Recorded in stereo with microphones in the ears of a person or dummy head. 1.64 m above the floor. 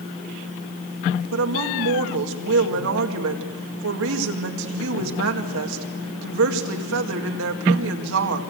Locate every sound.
1.3 s a woman speaking: 75° right (ahead or behind), 2 m